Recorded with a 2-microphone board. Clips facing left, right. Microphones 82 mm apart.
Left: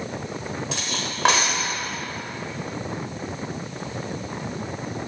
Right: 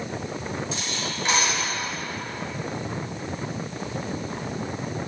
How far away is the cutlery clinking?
About 1.1 m.